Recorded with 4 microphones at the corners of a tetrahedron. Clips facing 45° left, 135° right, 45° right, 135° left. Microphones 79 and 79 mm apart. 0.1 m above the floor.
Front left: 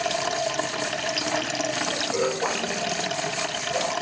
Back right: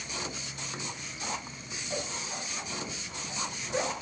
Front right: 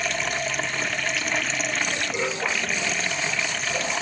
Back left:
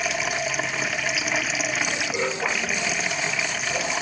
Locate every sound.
0.0 s running water: 50° left